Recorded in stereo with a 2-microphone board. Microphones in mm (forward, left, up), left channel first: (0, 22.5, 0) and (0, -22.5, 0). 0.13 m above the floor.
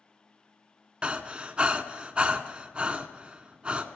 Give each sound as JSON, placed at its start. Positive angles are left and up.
{"t": 1.0, "sound": "breathing", "side_deg": -20, "distance_m": 0.6}